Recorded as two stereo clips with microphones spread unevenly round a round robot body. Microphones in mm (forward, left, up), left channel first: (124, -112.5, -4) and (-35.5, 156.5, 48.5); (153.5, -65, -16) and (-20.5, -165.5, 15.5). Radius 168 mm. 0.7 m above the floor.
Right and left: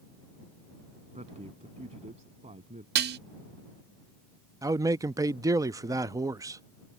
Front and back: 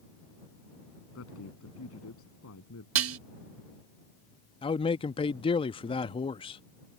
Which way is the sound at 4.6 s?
35° left.